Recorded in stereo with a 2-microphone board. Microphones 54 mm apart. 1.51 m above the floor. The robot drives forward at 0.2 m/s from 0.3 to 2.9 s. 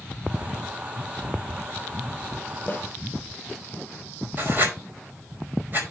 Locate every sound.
2.7 s a snare drum: 35° left (ahead or behind), 5.5 m
4.4 s writing: 40° right (ahead or behind), 4.5 m